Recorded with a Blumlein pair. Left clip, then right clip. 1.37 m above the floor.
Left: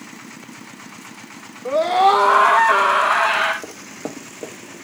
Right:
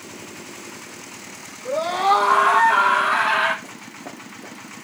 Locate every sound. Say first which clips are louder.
1.6 s a scream: left 4 dB; 65° left, 2 m; by 3.5 s 60° left, 4.5 m
3.6 s running footsteps: left 4 dB; 45° left, 5.5 m